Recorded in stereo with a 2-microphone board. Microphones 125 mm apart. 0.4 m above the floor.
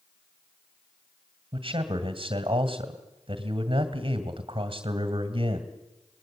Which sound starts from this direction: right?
A man speaking, at 1.5 s.